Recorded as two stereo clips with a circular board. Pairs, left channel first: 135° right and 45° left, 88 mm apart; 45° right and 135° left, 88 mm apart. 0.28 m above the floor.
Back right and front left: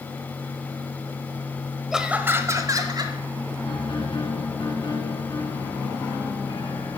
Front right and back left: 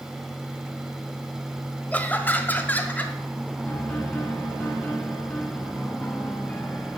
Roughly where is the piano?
Behind right.